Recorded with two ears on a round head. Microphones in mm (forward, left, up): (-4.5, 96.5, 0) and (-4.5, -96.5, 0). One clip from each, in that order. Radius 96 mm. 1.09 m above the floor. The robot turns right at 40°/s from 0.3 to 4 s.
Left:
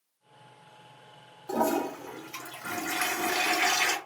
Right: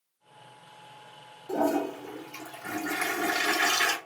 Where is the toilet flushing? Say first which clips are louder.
Even; 105° left, 2 m; by 4.0 s 155° right, 2 m.